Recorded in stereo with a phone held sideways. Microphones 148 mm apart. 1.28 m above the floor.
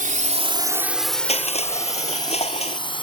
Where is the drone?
70° right (ahead or behind); by 3.0 s 35° left (ahead or behind).